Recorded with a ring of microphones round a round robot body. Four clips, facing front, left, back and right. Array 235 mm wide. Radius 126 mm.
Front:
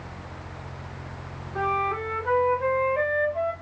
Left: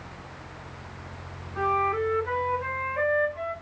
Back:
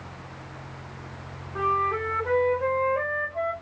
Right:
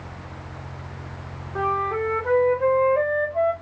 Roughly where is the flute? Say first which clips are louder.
Right 1 dB, back 1 dB; right.